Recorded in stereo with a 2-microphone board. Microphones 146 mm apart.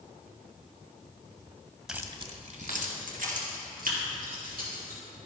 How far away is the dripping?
I don't hear dripping.